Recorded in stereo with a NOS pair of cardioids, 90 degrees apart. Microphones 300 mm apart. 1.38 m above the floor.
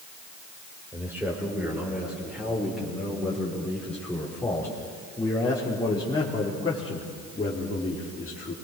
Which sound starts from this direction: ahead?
A man speaking, at 0.9 s.